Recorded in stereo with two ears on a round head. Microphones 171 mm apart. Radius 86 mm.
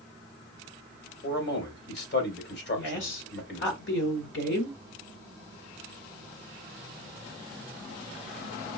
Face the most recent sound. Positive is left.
turn(degrees=65)  # may be behind; listen again after turning